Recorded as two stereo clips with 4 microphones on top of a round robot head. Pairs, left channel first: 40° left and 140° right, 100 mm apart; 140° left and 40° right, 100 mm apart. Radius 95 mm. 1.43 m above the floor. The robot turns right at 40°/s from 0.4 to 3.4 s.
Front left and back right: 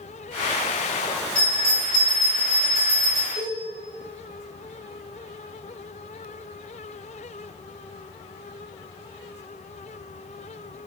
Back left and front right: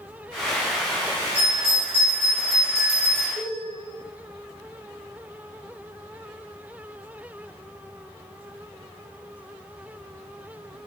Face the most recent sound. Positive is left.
turn(degrees=85)